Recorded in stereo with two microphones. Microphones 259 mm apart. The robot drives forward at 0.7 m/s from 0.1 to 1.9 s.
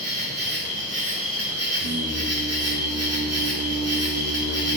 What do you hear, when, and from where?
0.0 s an insect: 35° right (ahead or behind), 1.7 m; by 4.8 s 75° right (ahead or behind), 1.0 m
1.7 s singing: 70° right (ahead or behind), 1.0 m; by 4.8 s 75° right (ahead or behind), 1.0 m